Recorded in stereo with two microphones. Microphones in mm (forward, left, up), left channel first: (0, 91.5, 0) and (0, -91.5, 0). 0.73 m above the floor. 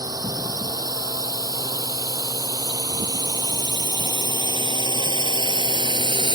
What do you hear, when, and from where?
0.0 s a drone: 20° right (ahead or behind); by 6.4 s 30° right (ahead or behind)